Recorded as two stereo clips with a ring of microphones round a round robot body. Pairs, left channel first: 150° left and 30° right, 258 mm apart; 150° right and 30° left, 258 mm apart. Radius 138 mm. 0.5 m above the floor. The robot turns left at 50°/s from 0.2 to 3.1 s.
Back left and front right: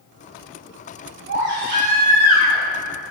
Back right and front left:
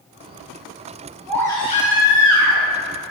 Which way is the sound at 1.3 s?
65° right.